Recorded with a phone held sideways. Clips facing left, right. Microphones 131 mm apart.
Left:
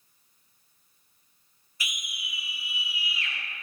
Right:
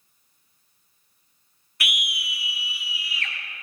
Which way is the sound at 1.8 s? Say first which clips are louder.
Right 8 dB; 70° right (ahead or behind).